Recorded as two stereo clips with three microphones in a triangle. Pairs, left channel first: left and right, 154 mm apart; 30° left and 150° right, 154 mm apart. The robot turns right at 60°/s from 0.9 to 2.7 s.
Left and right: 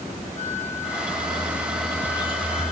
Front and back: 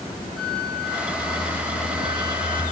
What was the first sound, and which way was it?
A flute, 55° right.